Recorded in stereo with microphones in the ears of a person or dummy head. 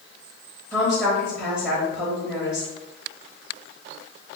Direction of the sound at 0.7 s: 5° right (ahead or behind).